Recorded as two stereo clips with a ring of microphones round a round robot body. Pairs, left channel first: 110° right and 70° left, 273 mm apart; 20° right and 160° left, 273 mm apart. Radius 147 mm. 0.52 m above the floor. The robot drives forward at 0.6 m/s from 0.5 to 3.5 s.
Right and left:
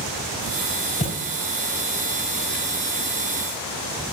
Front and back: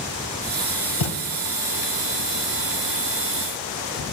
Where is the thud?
45° right, 1.3 m; by 1.2 s 50° right, 1.2 m.